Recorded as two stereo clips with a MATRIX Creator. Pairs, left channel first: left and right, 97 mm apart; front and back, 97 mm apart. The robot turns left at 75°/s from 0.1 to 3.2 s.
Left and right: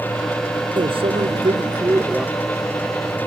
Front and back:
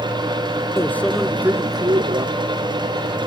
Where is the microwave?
60° right; by 2.3 s 170° right.